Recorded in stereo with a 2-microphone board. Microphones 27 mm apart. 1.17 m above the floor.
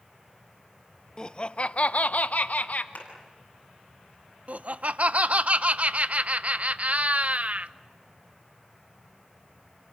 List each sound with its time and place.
1.2 s laughter: 30° left (ahead or behind), 0.8 m; by 2.9 s 70° left (ahead or behind), 1.2 m
3.0 s a clap: 60° left (ahead or behind), 8 m
4.5 s laughter: 55° right (ahead or behind), 0.7 m